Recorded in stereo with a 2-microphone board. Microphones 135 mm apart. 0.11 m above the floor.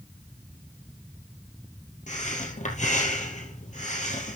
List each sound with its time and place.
2.1 s breathing: 60° left (ahead or behind), 2.5 m